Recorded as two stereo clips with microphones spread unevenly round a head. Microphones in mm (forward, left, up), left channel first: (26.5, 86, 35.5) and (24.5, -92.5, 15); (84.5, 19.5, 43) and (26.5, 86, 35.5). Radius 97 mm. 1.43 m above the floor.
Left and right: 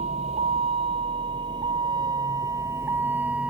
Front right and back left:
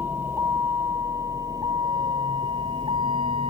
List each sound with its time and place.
0.0 s a vehicle: 150° right; by 3.5 s 175° right